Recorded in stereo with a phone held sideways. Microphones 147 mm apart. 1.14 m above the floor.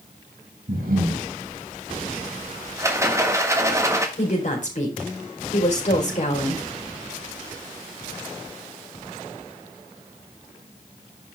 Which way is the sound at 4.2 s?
55° left (ahead or behind).